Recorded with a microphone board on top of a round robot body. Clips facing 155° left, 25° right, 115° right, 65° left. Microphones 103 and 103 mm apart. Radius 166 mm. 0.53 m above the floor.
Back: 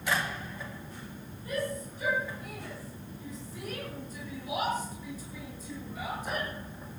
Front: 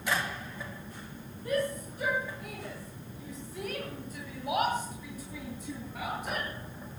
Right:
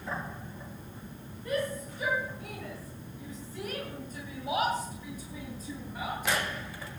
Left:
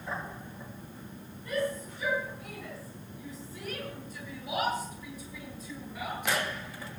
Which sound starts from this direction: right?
A shout, at 1.4 s.